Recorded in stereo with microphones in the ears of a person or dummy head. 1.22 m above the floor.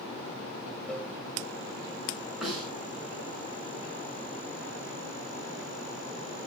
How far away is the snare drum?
About 8 m.